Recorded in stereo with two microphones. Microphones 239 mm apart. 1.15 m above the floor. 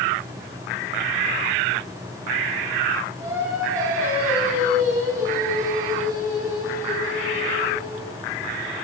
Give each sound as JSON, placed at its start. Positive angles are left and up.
{"t": 3.2, "sound": "singing", "side_deg": -10, "distance_m": 8.5}